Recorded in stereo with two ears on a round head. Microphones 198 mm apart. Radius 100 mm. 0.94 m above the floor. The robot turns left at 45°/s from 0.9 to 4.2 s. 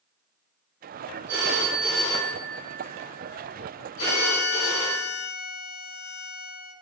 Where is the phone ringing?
170° right, 1.8 m; by 5.0 s 60° left, 1.8 m.